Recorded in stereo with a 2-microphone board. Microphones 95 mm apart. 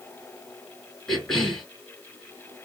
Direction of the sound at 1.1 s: 5° left (ahead or behind).